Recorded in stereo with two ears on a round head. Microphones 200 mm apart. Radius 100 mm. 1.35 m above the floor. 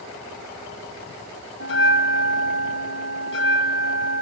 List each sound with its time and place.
1.6 s a bell: 55° left (ahead or behind), 5 m